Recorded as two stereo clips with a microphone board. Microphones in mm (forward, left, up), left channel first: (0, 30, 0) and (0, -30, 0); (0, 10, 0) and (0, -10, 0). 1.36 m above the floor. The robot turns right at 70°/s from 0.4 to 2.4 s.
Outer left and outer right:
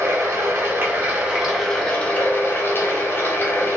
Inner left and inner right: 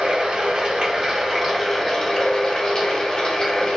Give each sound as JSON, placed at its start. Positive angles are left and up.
{"t": 0.0, "sound": "running water", "azimuth_deg": -80, "distance_m": 0.7}